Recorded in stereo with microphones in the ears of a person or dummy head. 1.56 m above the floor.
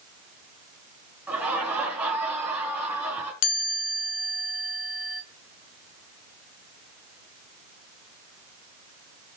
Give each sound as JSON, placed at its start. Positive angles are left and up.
{"t": 1.3, "sound": "laughter", "side_deg": -5, "distance_m": 3.5}
{"t": 3.4, "sound": "a chime", "side_deg": 75, "distance_m": 1.2}